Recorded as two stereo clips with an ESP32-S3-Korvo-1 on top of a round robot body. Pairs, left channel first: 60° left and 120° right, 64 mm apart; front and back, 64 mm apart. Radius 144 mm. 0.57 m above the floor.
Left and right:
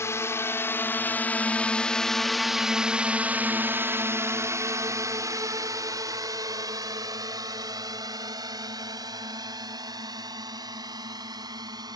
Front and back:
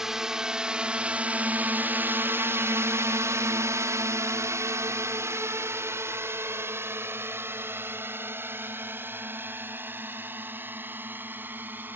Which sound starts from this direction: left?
A drone, at 0.0 s.